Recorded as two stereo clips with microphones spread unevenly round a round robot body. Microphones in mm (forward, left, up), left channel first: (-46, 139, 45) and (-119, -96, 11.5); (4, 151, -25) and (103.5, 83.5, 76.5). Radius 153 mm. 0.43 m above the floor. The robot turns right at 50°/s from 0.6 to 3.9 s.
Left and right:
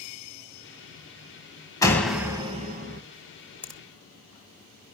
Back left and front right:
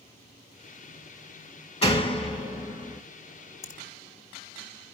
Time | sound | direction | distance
1.8 | a door slam | 150° left | 2.5 m
3.6 | a finger snap | 160° left | 1.6 m